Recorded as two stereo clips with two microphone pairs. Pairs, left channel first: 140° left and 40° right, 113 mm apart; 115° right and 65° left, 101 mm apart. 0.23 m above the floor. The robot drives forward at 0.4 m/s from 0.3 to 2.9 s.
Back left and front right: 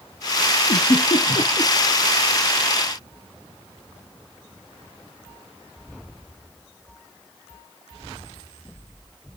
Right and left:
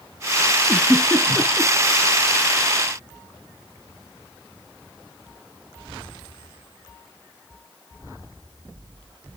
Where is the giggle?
160° left, 2.5 m; by 1.7 s 165° left, 2.5 m.